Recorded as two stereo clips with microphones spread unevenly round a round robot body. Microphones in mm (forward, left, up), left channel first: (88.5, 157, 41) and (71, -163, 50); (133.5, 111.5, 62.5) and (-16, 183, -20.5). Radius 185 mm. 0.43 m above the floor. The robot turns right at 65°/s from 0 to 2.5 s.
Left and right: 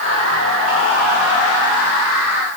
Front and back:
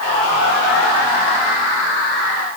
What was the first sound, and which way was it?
Only background noise.